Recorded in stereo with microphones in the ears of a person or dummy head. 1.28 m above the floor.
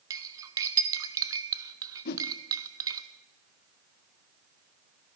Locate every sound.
0.1 s cutlery clinking: 20° right (ahead or behind), 0.6 m
2.0 s a whoosh: 55° left (ahead or behind), 0.7 m